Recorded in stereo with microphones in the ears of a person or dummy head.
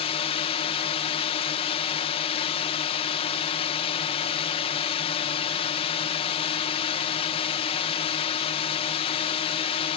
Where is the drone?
25° left (ahead or behind).